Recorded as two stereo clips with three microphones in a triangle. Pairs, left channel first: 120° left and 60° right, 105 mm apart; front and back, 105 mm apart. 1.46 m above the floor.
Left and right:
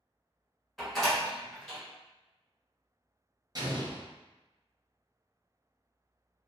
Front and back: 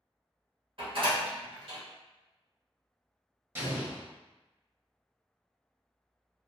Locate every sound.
0.8 s a door slam: 150° right, 1.1 m
3.5 s an explosion: 115° right, 0.7 m